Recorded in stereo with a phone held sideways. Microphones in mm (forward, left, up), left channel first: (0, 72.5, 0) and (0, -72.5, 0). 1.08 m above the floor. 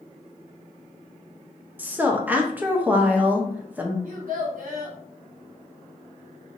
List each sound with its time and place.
1.8 s a woman speaking: 10° right (ahead or behind), 0.7 m
4.0 s a child speaking: 70° right (ahead or behind), 1.3 m